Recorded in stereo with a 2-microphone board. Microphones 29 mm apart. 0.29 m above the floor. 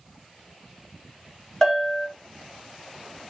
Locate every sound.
1.6 s a bell: 25° left (ahead or behind), 1.3 m